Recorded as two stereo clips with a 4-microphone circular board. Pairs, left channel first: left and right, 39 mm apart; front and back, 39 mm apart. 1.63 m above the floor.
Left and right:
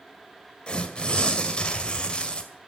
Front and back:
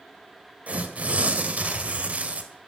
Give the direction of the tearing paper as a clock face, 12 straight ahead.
7 o'clock.